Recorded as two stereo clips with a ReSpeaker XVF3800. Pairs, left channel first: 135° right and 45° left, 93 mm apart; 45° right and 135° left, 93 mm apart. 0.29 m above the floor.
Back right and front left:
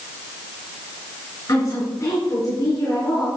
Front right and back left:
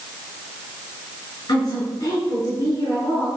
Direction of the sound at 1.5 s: 85° right.